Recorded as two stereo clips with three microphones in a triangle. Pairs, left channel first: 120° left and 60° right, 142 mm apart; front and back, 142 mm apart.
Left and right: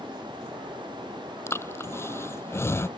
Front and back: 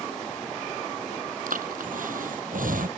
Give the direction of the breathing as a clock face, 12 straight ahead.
6 o'clock.